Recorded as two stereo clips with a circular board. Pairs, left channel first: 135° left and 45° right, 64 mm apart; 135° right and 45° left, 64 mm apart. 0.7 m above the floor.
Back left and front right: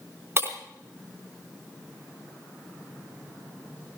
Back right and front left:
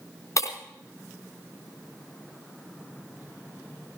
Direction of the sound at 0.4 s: 100° right.